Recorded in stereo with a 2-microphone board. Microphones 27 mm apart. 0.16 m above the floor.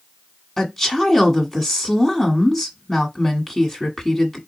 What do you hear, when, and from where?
0.6 s a woman speaking: 10° left (ahead or behind), 1.4 m